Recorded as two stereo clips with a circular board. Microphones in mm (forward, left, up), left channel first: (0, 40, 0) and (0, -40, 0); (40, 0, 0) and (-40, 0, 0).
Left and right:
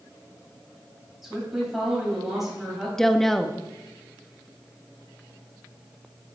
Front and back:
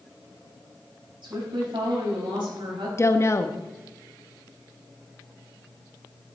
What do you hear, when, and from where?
1.2 s a woman speaking: 175° right, 4.5 m
3.0 s a woman speaking: 10° left, 0.7 m